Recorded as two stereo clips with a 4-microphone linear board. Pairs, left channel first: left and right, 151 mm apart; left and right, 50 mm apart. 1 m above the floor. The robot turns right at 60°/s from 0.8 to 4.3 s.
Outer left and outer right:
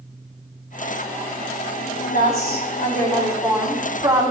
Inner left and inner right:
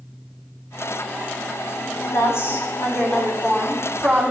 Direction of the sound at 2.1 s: 80° left.